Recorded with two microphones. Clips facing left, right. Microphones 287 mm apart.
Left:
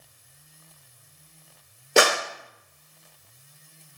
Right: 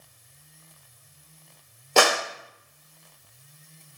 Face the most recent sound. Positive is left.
turn(degrees=20)  # may be behind; listen again after turning